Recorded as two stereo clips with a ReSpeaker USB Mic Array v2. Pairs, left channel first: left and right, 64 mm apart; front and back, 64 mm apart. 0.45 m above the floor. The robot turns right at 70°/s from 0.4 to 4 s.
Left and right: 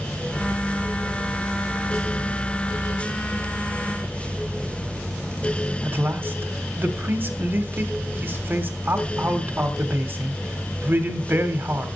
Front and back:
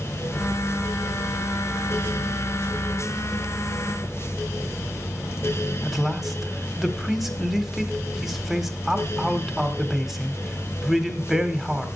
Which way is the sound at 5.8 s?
95° right.